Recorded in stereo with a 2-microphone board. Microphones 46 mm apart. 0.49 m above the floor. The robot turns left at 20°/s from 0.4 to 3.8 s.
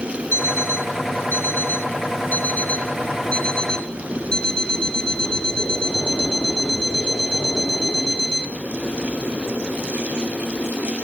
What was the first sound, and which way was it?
An alarm clock, 80° left.